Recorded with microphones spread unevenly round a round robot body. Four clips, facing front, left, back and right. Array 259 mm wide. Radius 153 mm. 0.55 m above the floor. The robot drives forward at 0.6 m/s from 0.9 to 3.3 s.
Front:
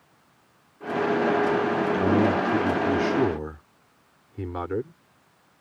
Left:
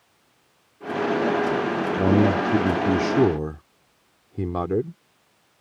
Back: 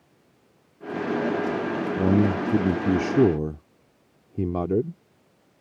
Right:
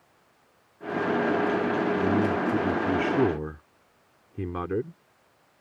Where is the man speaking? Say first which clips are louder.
Left 5 dB, back 2 dB; 115° left; by 5.0 s 155° left.